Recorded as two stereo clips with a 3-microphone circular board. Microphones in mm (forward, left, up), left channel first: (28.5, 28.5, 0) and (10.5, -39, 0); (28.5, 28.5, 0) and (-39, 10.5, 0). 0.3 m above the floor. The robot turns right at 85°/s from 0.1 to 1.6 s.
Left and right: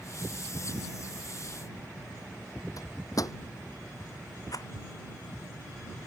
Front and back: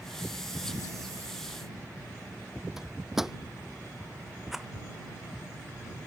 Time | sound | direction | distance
2.8 | a microwave | 110° left | ?
4.5 | a rattle | 105° left | ?